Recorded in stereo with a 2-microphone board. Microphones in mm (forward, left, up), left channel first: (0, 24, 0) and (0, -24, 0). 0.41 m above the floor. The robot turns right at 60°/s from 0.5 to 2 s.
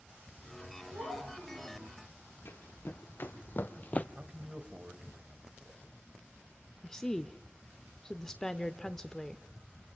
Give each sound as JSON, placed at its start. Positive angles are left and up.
{"t": 0.9, "sound": "a child speaking", "azimuth_deg": -120, "distance_m": 10.0}
{"t": 2.5, "sound": "running footsteps", "side_deg": 55, "distance_m": 2.0}
{"t": 4.2, "sound": "a man speaking", "side_deg": -25, "distance_m": 1.9}
{"t": 6.8, "sound": "a woman speaking", "side_deg": 10, "distance_m": 0.7}